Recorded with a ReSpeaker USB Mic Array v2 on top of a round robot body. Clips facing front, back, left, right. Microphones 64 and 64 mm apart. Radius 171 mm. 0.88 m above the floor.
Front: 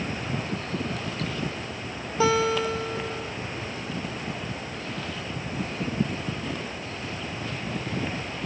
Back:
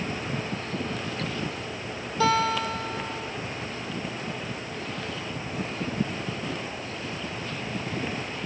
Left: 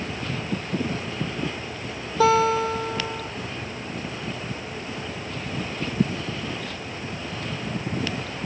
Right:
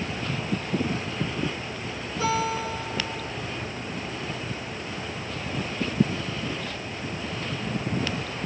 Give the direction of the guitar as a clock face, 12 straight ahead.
10 o'clock.